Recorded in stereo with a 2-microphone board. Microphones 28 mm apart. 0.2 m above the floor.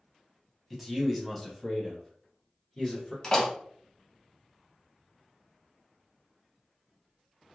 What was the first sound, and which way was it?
A man speaking, 5° right (ahead or behind).